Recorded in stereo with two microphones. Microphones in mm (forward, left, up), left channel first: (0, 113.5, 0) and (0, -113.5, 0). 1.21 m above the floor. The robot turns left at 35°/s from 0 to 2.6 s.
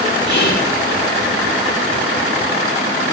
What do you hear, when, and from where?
0.3 s whispering: 55° left (ahead or behind), 3.5 m; by 0.7 s 70° left (ahead or behind), 3.5 m